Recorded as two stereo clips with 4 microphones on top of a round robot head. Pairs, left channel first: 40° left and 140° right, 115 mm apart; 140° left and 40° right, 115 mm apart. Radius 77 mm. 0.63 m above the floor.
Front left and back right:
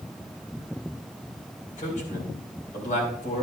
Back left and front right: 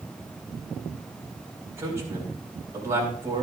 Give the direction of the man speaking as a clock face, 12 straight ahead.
11 o'clock.